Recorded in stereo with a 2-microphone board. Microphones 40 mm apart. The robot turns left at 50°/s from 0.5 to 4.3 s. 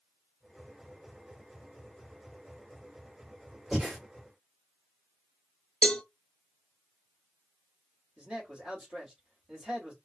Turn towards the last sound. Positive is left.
turn(degrees=-25)  # may be behind; listen again after turning